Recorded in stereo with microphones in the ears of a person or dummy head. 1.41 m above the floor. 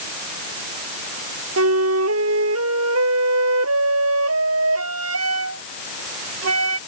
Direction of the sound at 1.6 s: 85° right.